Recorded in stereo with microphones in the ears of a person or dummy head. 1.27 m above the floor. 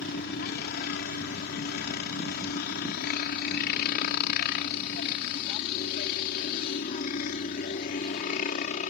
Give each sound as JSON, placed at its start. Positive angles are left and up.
{"t": 0.0, "sound": "a helicopter", "side_deg": 55}